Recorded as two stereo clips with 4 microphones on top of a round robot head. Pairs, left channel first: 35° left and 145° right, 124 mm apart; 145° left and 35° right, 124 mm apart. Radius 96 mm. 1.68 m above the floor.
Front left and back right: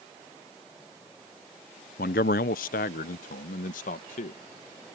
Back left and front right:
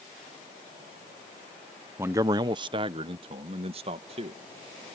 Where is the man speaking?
40° left; by 4.4 s 10° left.